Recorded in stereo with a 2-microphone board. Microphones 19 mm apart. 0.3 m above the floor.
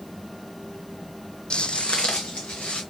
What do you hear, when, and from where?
1.5 s footsteps: 55° left (ahead or behind), 0.6 m; by 2.8 s 75° left (ahead or behind), 2.5 m